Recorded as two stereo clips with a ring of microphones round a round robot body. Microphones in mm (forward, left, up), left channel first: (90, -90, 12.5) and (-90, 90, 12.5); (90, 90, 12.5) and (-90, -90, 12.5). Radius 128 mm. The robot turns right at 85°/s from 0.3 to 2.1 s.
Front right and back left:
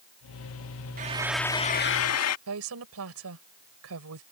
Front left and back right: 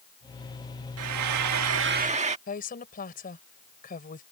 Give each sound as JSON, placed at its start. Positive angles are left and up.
{"t": 1.0, "sound": "frying", "azimuth_deg": -170}
{"t": 2.5, "sound": "a woman speaking", "azimuth_deg": 105}